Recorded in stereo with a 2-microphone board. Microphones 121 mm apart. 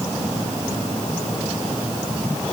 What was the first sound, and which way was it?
Only background noise.